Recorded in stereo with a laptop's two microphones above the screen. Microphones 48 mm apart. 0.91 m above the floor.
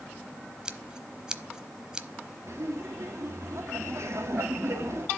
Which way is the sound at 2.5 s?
70° right (ahead or behind).